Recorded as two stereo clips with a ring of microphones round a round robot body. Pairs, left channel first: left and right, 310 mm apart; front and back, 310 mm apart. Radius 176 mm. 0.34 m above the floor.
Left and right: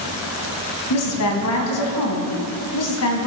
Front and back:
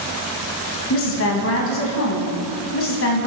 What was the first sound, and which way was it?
A woman speaking, 50° left.